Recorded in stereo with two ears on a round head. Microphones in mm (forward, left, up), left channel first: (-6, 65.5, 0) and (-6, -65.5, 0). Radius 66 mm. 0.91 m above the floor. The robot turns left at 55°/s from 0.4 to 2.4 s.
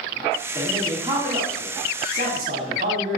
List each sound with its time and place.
0.6 s a man speaking: 10° right, 1.3 m; by 3.2 s 110° right, 1.3 m